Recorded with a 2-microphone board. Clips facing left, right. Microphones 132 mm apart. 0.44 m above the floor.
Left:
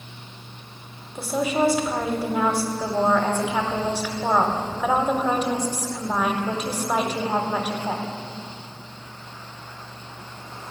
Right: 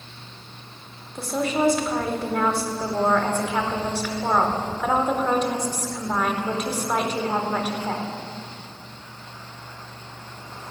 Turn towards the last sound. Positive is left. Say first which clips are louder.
# left 1 dB
turn(degrees=10)  # may be behind; listen again after turning